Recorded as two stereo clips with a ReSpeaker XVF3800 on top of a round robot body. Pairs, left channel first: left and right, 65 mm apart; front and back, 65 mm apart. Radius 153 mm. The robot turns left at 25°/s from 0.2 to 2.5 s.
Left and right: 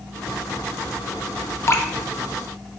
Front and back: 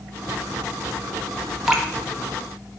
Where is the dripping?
95° left, 0.7 m.